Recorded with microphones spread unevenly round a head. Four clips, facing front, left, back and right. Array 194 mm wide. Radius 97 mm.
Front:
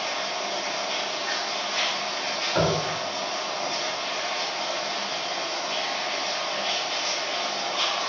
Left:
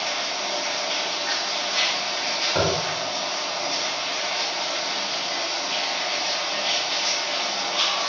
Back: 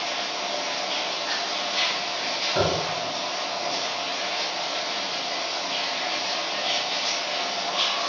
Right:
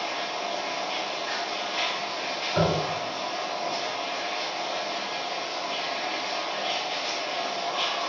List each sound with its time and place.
0.0 s running water: 85° left, 1.9 m
2.5 s tapping: 85° left, 1.6 m